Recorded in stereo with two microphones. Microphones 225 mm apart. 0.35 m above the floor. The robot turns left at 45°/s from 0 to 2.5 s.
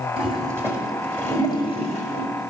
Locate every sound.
0.2 s a toilet flushing: 30° right (ahead or behind), 1.8 m; by 2.3 s 40° left (ahead or behind), 1.8 m